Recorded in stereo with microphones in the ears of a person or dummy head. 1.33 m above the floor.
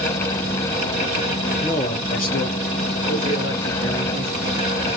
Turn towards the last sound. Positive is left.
turn(degrees=55)  # may be behind; listen again after turning